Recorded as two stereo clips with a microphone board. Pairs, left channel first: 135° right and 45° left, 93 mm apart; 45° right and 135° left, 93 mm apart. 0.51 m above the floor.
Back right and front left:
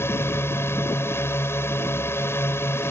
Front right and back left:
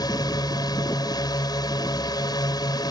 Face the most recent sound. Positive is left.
turn(degrees=-75)